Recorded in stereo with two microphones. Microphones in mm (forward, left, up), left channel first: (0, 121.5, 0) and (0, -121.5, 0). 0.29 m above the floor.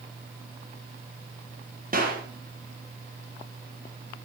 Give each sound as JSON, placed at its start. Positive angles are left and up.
{"t": 1.9, "sound": "a clap", "side_deg": -35, "distance_m": 5.5}